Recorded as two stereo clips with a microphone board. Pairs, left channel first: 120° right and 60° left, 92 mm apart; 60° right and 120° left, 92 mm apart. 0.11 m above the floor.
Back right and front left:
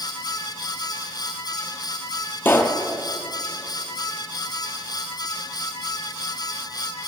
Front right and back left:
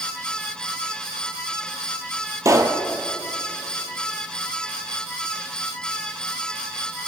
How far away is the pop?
About 1.0 m.